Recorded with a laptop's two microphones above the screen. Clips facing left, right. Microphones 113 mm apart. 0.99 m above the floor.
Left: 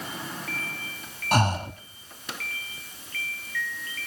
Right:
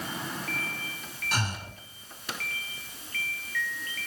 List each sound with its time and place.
1.3 s breathing: 60° left (ahead or behind), 1.1 m